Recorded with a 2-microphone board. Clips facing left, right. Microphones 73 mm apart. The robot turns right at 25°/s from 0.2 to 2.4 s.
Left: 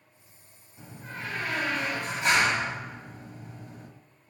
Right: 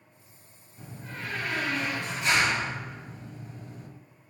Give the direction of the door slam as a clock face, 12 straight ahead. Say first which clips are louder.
Even; 12 o'clock.